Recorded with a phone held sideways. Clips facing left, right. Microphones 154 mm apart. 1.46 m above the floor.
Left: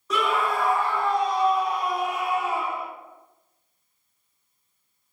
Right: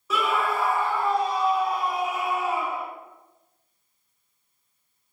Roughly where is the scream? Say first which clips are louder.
Left 1 dB; centre.